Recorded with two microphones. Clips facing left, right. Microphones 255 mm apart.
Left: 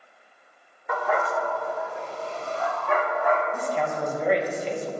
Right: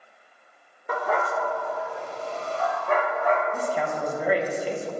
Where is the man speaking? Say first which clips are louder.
Even; 5° right (ahead or behind), 1.1 m.